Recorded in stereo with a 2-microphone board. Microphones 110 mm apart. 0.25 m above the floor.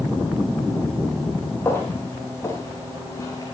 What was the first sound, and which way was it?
Footsteps, 20° left (ahead or behind).